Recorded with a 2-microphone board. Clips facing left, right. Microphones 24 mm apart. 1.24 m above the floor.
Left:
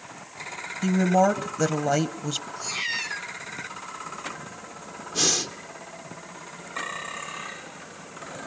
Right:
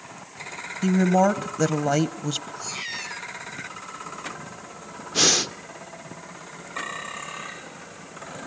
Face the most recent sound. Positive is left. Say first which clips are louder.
# right 4 dB
turn(degrees=-30)  # may be behind; listen again after turning